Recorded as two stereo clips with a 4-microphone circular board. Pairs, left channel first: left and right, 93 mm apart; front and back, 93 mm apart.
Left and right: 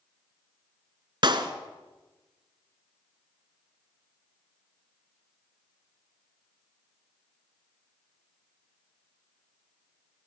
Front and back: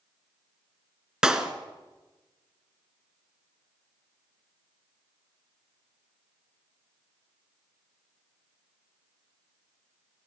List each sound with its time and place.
1.2 s a clap: 100° right, 1.6 m